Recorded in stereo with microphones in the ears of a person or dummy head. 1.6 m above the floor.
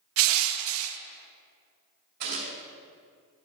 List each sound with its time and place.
0.2 s crushing: 80° right, 0.5 m
2.2 s a gunshot: 55° right (ahead or behind), 2.5 m